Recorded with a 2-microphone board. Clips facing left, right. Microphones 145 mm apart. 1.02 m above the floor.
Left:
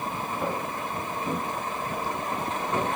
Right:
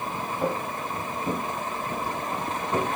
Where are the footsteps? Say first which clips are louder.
Right 4 dB; 5° right (ahead or behind), 7 m; by 2.9 s 10° right (ahead or behind), 8.5 m.